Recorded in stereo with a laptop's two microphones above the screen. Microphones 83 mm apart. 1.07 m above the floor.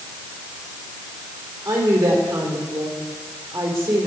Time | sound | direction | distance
1.6 | a woman speaking | 35° right (ahead or behind) | 3.5 m